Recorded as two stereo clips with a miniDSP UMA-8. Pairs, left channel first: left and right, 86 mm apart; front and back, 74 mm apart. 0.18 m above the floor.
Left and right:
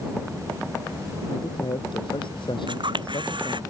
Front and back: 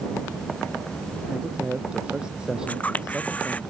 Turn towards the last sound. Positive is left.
turn(degrees=-70)